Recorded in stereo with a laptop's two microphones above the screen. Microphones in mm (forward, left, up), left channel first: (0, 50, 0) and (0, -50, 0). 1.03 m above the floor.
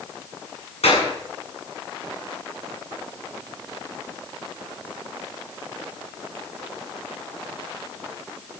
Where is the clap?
90° left, 7.5 m.